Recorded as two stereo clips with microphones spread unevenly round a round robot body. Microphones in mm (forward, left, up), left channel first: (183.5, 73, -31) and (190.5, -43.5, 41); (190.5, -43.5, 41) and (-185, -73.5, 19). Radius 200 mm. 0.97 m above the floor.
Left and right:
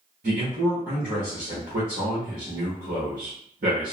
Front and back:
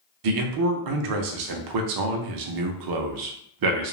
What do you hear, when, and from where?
0.2 s a man speaking: 145° right, 0.6 m